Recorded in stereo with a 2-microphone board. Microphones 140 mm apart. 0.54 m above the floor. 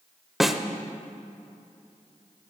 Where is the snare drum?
Centre (ahead or behind), 0.5 m.